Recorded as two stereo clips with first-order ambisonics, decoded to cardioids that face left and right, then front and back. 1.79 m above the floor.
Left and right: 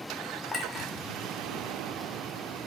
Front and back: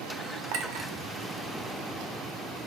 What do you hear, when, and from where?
0.5 s a clink: 170° left, 1.3 m